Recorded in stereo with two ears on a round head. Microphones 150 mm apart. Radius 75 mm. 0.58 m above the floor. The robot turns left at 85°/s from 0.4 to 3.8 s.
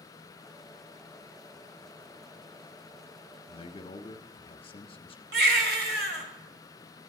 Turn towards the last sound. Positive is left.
turn(degrees=-65)  # may be behind; listen again after turning